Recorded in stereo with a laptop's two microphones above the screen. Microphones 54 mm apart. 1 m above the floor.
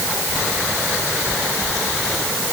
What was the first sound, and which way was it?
Only background noise.